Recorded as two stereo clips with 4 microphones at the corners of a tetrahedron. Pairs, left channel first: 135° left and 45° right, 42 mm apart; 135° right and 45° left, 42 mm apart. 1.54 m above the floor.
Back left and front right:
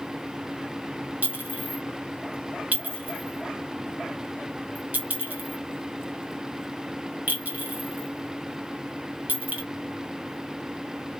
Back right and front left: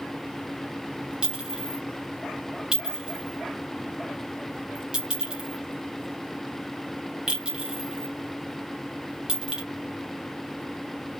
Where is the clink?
20° right, 0.9 m.